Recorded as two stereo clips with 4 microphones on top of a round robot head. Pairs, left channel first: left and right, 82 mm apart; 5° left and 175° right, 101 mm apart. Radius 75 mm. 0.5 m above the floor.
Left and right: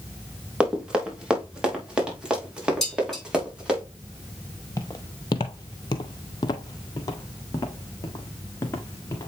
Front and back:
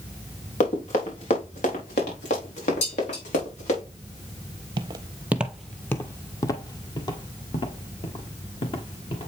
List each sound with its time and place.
0.6 s running footsteps: 10° right, 3 m
2.8 s dishes clattering: 5° left, 5.5 m
4.8 s footsteps: 155° left, 0.6 m; by 9.3 s 35° left, 2 m